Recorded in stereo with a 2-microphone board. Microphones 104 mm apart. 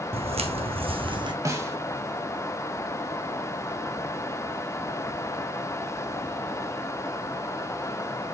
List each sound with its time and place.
0.1 s footsteps: 70° right (ahead or behind), 1.0 m; by 1.3 s 45° right (ahead or behind), 0.9 m
1.4 s a snare drum: 30° right (ahead or behind), 1.3 m